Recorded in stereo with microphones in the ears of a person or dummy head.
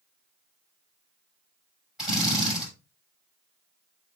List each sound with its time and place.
2.0 s a drill: 5° right (ahead or behind), 6.5 m